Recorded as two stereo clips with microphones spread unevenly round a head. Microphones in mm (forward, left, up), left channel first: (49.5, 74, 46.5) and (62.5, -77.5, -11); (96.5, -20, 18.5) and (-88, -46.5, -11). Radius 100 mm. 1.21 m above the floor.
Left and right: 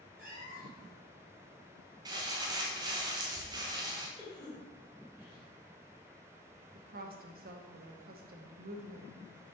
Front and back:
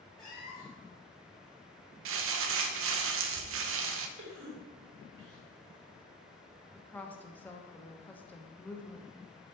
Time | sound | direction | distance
0.2 | a cat meowing | 55° right | 2.5 m
2.0 | crumpling | 155° right | 0.6 m
4.2 | a cough | 175° left | 2 m
6.8 | a woman speaking | 75° right | 1.0 m